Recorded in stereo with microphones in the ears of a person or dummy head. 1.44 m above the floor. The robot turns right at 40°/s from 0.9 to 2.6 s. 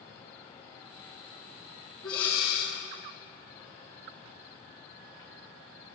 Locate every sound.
2.0 s breathing: 25° left (ahead or behind), 2.5 m; by 2.8 s 45° left (ahead or behind), 2.5 m